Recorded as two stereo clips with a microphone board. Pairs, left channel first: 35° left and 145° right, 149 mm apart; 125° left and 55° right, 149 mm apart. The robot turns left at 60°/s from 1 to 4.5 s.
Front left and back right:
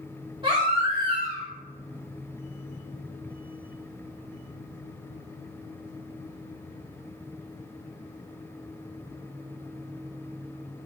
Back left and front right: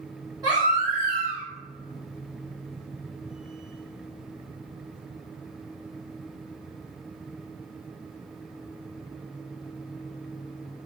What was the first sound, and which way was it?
A baby crying, 105° right.